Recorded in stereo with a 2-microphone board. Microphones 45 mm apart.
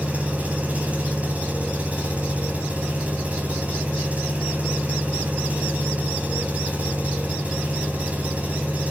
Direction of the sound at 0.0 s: 30° right (ahead or behind).